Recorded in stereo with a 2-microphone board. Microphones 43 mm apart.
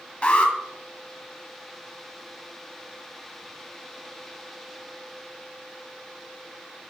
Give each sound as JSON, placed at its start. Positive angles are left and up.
{"t": 0.2, "sound": "an alarm", "side_deg": 30, "distance_m": 1.2}